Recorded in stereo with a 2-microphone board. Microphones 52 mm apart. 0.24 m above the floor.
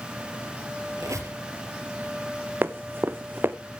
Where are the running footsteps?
45° right (ahead or behind), 1.0 m.